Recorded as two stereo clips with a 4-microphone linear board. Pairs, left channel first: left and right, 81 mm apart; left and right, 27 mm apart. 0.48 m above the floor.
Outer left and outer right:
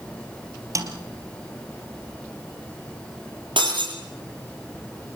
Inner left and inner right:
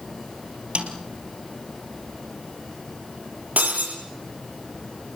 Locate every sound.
0.8 s a snare drum: 45° right (ahead or behind), 3 m
3.6 s breaking glass: 85° right, 8 m